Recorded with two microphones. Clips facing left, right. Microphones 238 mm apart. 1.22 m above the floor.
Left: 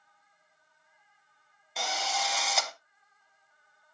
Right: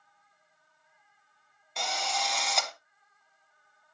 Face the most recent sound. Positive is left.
turn(degrees=0)  # may be behind; listen again after turning